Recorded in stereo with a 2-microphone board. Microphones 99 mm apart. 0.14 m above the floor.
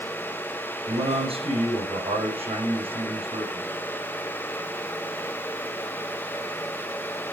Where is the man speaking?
80° right, 7.5 m.